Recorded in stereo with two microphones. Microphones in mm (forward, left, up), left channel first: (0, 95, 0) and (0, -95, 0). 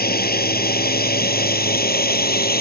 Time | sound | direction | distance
0.0 | a drone | 60° left (ahead or behind) | ?